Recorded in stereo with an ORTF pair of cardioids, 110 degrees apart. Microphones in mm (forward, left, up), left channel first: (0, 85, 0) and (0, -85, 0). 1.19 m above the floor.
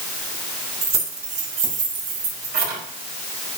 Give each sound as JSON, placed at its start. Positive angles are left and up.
{"t": 0.8, "sound": "keys jangling", "azimuth_deg": -35, "distance_m": 3.0}